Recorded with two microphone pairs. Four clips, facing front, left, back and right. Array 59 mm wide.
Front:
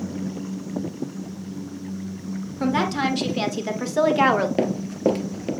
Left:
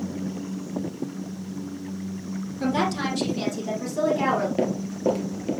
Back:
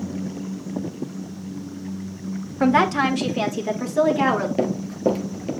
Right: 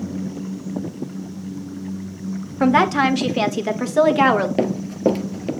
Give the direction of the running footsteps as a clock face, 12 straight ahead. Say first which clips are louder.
Right 5 dB, even; 1 o'clock.